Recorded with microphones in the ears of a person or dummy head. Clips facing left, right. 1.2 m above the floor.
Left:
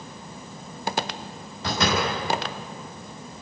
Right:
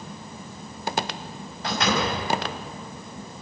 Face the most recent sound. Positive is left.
turn(degrees=90)